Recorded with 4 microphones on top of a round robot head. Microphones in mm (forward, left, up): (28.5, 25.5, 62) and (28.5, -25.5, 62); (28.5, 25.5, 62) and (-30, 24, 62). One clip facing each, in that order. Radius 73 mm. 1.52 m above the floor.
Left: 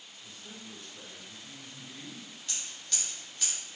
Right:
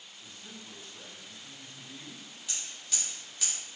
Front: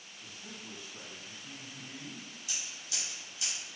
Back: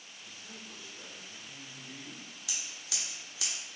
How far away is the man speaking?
About 1.1 m.